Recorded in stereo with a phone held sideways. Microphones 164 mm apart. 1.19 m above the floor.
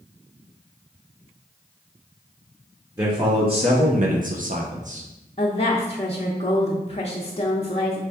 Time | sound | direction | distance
3.0 | a man speaking | 25° right (ahead or behind) | 1.0 m
5.4 | a woman speaking | 40° left (ahead or behind) | 0.6 m